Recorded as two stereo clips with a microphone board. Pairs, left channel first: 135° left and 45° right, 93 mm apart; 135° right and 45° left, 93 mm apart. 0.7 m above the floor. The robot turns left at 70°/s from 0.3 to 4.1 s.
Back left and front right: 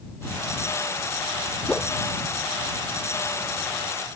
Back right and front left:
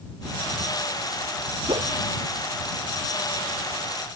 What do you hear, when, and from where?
1.7 s a whoosh: 60° left; by 1.9 s 45° left